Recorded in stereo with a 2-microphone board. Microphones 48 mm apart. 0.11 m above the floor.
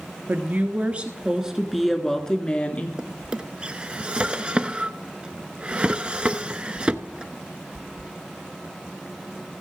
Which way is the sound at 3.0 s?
25° right (ahead or behind).